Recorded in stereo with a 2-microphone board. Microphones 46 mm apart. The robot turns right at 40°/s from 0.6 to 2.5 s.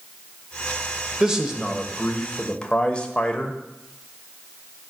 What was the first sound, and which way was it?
A man speaking, 20° right.